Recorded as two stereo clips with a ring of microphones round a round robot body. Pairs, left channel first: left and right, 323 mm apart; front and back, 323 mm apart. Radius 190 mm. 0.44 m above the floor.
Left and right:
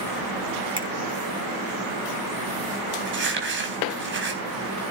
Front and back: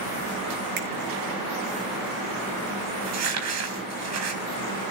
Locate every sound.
0.8 s a finger snap: 165° right, 6.5 m
3.0 s crumpling: 145° right, 4.5 m